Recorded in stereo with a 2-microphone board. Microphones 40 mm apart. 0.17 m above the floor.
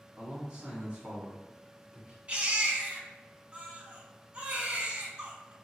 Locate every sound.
0.2 s a man speaking: 25° right (ahead or behind), 1.1 m
2.3 s a baby crying: 30° right (ahead or behind), 1.0 m